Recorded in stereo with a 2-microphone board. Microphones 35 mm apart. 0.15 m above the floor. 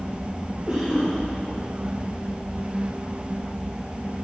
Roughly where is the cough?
Right.